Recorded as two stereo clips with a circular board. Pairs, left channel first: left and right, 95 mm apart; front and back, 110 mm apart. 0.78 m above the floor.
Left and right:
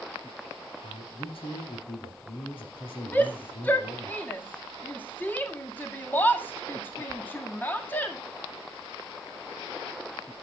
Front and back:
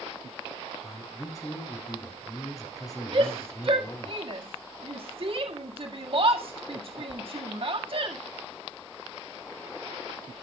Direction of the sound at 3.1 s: 155° left.